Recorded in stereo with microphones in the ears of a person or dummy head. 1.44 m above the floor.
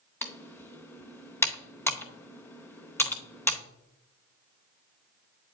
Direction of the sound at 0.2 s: 15° left (ahead or behind).